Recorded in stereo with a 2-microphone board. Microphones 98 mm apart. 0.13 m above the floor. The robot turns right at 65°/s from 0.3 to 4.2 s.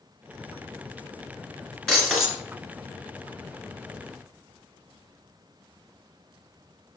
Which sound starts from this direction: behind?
Breaking glass, at 1.9 s.